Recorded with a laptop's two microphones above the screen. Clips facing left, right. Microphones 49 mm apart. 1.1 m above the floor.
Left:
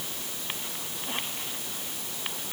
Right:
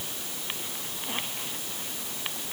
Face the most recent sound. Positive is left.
No sound to turn to.